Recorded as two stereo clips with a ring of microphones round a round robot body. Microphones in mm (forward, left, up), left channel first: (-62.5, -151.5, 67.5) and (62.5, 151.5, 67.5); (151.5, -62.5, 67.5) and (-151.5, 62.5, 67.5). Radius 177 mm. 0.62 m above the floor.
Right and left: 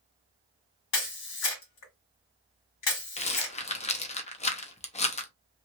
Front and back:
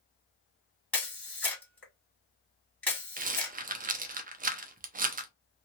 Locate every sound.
0.9 s a camera shutter: 105° right, 1.9 m
3.2 s a rattle: 165° right, 0.7 m